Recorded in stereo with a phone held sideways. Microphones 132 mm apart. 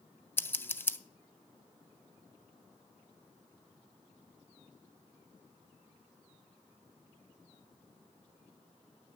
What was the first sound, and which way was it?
Scissors, 15° left (ahead or behind).